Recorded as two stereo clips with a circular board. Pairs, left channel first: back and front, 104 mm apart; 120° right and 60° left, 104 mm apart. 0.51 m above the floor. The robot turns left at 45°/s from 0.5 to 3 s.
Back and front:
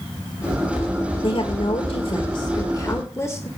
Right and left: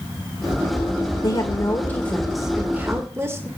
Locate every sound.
1.2 s a woman speaking: 160° right, 1.5 m; by 3.5 s 120° left, 1.5 m